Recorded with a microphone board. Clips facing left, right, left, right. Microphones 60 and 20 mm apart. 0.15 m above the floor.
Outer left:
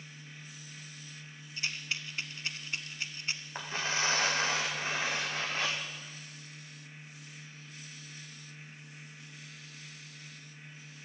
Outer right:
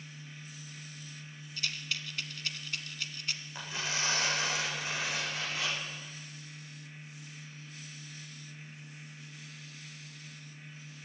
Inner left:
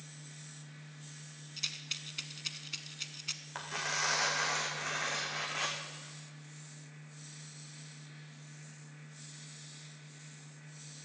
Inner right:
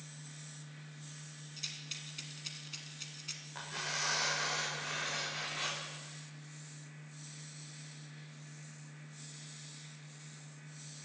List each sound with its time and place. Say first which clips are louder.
1.6 s a rattle: outer left 1 dB, inner left 5 dB; 30° left (ahead or behind), 1.1 m
3.5 s tearing paper: outer left 3 dB, inner left 2 dB; 45° left (ahead or behind), 3.5 m